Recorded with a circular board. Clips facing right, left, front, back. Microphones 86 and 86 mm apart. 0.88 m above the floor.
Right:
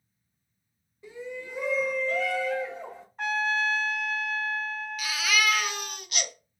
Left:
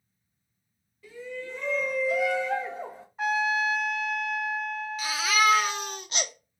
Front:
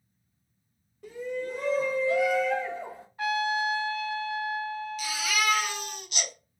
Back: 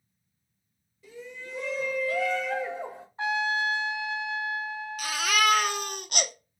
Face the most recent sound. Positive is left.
turn(degrees=150)